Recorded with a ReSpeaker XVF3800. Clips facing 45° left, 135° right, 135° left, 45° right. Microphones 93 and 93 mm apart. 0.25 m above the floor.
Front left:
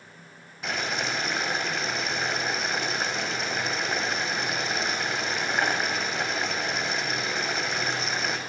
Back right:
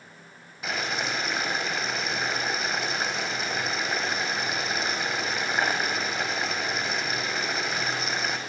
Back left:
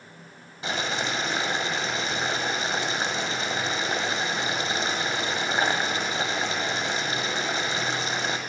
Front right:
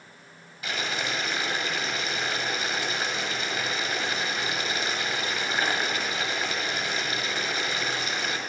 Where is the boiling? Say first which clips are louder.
Even, back left 3 dB; 140° left, 1.0 m.